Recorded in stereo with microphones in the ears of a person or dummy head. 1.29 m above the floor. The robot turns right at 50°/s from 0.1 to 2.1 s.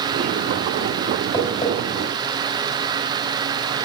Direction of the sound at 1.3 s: 5° left (ahead or behind).